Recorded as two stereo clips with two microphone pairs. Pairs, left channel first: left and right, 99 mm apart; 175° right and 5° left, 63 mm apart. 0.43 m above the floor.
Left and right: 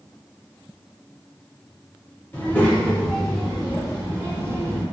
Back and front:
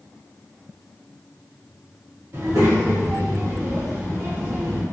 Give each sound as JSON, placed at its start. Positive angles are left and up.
{"t": 2.3, "sound": "a child speaking", "azimuth_deg": 25, "distance_m": 1.2}